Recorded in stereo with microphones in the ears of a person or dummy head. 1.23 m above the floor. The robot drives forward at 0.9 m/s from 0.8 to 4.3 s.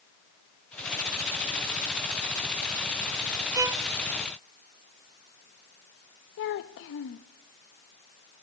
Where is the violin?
15° right (ahead or behind), 0.6 m; by 3.8 s 20° right (ahead or behind), 0.5 m.